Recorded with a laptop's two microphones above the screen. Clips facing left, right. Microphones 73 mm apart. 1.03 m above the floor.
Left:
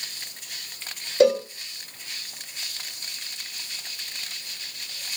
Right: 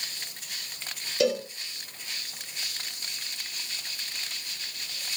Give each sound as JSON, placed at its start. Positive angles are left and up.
{"t": 1.2, "sound": "a cowbell", "side_deg": 40, "distance_m": 0.8}